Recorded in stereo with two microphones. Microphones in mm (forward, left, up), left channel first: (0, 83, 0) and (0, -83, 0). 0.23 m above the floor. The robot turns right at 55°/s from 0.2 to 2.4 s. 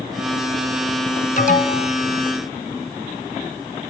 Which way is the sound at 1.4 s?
50° left (ahead or behind).